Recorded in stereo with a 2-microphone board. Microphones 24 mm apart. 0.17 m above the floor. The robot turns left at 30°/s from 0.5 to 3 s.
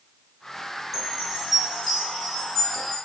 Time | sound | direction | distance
0.9 | a chime | 15° right (ahead or behind) | 1.6 m